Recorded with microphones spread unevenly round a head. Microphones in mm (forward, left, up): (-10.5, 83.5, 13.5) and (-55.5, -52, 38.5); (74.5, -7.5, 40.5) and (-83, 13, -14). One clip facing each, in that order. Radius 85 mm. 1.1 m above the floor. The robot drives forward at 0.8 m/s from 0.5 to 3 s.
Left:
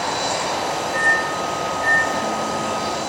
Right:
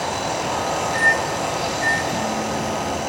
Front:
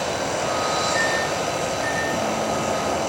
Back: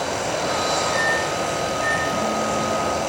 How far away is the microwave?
About 7.5 m.